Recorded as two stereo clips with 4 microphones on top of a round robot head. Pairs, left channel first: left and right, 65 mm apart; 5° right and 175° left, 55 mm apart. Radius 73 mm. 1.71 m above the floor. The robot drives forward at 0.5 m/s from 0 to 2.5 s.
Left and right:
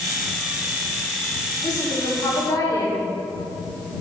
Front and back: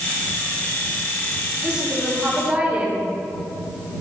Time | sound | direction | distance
1.6 | a woman speaking | 105° left | 3 m